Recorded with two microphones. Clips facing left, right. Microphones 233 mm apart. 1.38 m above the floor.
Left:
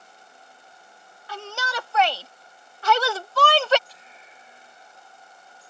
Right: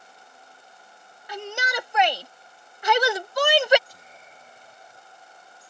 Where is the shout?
20° right (ahead or behind); by 3.8 s 15° right (ahead or behind).